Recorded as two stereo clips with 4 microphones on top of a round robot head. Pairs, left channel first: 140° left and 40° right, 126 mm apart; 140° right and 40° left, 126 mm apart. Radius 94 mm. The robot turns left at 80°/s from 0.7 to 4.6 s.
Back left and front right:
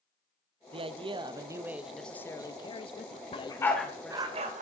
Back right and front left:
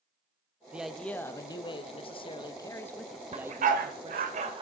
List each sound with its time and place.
0.7 s a man speaking: 35° right, 0.9 m; by 4.3 s 40° left, 0.9 m
3.3 s a dog barking: 90° left, 1.2 m; by 4.6 s 15° right, 1.2 m